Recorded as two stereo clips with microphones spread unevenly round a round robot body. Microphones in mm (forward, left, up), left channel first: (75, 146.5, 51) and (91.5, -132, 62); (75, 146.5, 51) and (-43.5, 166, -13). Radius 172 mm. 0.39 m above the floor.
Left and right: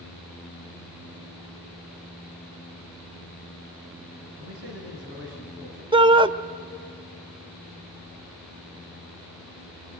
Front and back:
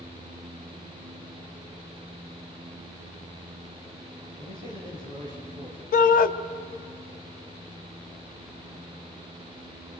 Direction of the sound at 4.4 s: 135° right.